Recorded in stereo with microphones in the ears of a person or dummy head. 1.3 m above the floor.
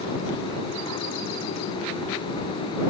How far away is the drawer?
No drawer in this recording.